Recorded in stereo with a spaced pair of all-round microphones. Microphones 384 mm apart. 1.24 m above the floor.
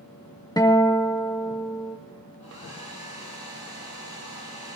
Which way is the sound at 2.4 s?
80° left.